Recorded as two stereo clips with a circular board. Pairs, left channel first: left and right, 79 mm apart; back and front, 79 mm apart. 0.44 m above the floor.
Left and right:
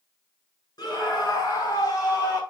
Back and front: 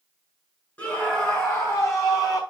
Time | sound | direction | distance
0.8 | a scream | 115° left | 3.5 m